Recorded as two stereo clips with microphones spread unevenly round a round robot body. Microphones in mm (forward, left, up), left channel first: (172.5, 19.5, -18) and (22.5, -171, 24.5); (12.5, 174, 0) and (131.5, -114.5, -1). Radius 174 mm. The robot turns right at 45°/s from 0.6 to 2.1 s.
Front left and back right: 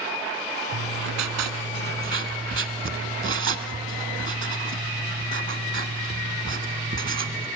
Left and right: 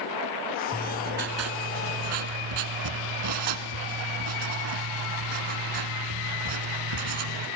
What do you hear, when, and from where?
0.7 s writing: 150° right, 1.3 m; by 7.5 s 90° right, 1.3 m